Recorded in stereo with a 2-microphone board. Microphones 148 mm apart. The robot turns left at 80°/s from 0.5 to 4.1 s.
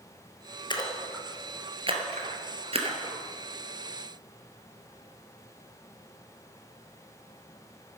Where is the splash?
30° left (ahead or behind), 1.5 m; by 3.2 s 20° right (ahead or behind), 1.5 m.